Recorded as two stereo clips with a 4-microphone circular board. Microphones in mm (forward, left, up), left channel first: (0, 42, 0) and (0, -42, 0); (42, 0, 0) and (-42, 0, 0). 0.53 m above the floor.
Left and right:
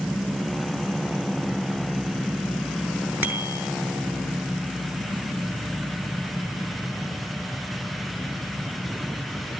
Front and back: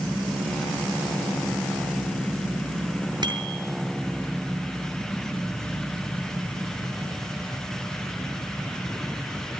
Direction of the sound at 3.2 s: 155° right.